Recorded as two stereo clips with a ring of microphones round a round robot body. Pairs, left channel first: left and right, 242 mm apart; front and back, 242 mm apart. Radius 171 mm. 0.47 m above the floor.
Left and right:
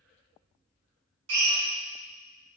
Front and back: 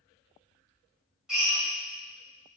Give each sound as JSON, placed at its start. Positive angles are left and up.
{"t": 1.3, "sound": "a drill", "azimuth_deg": -90, "distance_m": 2.0}